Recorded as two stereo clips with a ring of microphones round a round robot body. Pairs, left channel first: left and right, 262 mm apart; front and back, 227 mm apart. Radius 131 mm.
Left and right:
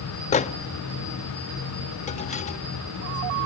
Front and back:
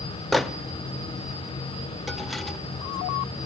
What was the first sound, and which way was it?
A microwave, 90° left.